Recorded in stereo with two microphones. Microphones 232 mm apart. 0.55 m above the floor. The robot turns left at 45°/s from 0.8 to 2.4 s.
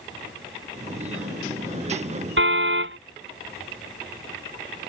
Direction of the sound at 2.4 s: 65° right (ahead or behind).